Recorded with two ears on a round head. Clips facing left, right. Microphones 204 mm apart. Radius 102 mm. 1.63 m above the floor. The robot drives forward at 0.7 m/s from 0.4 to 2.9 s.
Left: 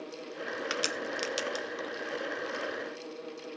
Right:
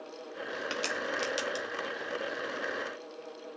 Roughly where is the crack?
Left.